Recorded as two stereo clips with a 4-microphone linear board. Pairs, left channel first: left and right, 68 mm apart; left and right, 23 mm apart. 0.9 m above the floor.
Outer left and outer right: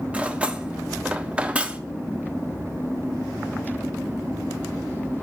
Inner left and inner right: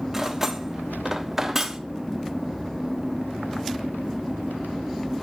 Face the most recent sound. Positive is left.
turn(degrees=-20)  # may be behind; listen again after turning